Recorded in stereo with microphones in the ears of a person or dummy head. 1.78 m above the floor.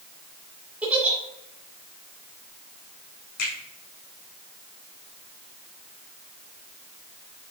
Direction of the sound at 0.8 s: 5° right (ahead or behind).